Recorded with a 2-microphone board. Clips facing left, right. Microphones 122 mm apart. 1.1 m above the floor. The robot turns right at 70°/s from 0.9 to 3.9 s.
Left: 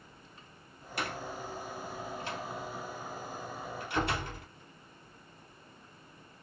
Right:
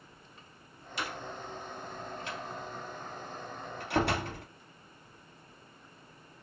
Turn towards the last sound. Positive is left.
turn(degrees=-80)